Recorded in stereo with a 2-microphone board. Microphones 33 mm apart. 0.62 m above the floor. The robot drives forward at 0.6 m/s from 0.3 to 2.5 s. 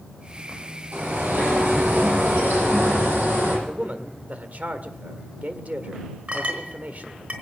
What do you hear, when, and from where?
0.9 s a bird: 75° right (ahead or behind), 8.5 m; by 3.6 s 80° right, 8.5 m
3.7 s a man speaking: 45° right (ahead or behind), 1.8 m
6.3 s a clink: 45° right (ahead or behind), 4 m